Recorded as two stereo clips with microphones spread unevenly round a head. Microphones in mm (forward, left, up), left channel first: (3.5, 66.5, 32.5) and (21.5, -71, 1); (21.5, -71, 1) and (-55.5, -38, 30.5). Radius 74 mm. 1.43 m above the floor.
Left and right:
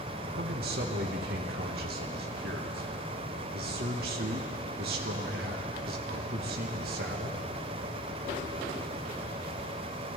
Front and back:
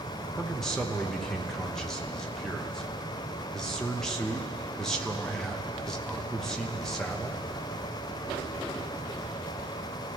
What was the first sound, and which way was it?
A man speaking, 110° right.